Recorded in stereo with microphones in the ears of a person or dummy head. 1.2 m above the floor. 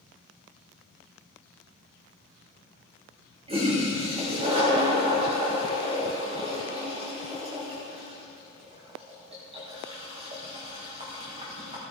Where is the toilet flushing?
35° right (ahead or behind), 3 m.